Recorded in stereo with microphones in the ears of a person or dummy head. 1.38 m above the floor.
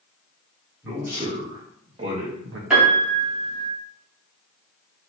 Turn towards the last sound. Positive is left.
turn(degrees=-5)  # may be behind; listen again after turning